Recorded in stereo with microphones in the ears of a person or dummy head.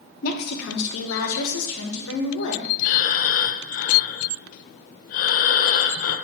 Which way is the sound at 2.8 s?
50° left (ahead or behind).